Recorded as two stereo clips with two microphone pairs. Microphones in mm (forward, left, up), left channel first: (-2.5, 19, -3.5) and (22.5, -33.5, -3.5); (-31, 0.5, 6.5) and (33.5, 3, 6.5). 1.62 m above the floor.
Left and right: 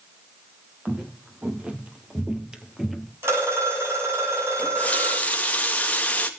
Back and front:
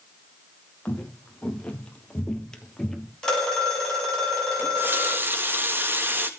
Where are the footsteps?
115° right, 2.5 m; by 3.1 s 150° right, 1.6 m.